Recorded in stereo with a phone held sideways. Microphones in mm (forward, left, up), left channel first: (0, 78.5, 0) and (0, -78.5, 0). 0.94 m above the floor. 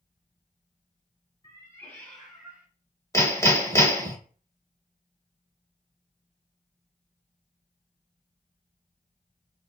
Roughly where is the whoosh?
No whoosh in this recording.